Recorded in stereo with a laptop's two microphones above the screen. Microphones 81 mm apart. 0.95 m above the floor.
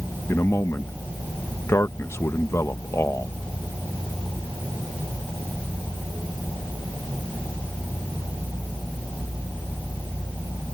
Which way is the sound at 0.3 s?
35° left (ahead or behind).